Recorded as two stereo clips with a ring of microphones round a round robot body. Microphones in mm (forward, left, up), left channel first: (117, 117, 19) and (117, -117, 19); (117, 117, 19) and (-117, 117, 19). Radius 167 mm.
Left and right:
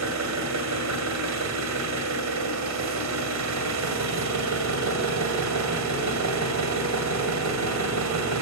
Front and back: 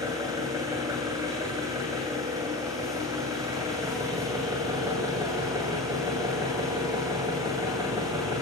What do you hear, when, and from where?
0.0 s an engine running: 100° right, 2 m